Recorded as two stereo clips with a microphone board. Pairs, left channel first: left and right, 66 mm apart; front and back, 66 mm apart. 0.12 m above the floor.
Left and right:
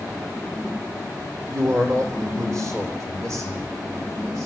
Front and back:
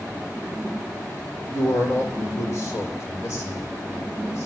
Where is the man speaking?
55° right, 3.5 m; by 4.5 s 45° right, 7 m.